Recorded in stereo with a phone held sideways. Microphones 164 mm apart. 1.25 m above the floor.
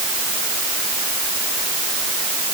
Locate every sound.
Only background noise.